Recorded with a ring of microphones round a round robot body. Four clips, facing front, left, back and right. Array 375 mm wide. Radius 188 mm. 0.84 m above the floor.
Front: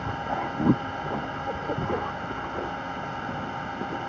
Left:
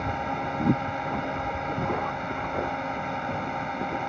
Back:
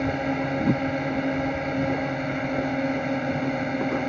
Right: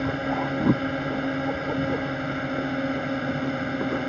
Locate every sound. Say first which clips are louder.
0.0 s a drone: right 3 dB, back 4 dB; 140° right